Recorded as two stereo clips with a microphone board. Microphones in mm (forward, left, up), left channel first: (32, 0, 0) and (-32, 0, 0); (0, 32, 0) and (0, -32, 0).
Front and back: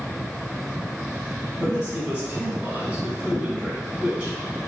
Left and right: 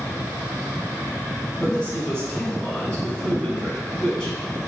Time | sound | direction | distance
1.6 | a man speaking | 140° left | 1.0 m